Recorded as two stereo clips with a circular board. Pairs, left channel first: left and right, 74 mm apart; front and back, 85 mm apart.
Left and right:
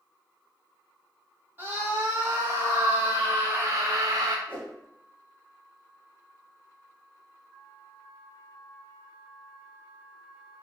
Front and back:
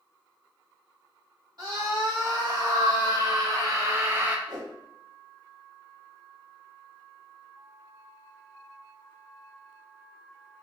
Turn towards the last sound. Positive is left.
turn(degrees=155)